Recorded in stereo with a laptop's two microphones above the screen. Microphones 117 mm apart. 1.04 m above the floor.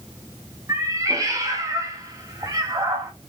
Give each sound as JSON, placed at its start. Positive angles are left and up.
{"t": 0.7, "sound": "a cat meowing", "side_deg": -30, "distance_m": 0.7}